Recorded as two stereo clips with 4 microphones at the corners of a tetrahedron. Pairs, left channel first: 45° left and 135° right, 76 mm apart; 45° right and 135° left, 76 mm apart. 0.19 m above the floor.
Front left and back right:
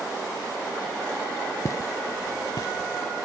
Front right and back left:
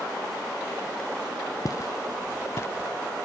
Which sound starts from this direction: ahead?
Footsteps, at 1.6 s.